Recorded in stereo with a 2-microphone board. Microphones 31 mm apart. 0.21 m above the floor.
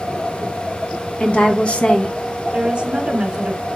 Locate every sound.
1.2 s a woman speaking: 40° left (ahead or behind), 1.8 m
2.5 s a woman speaking: 25° right (ahead or behind), 1.8 m